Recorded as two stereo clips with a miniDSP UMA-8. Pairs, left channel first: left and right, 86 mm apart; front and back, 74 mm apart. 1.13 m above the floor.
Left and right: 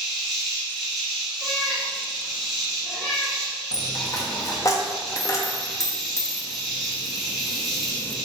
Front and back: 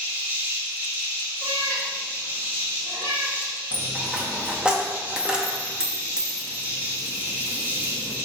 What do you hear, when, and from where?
0.0 s an insect: straight behind, 1.0 m
1.4 s a cat meowing: 170° left, 1.2 m
3.7 s a dropped coin: 105° left, 0.5 m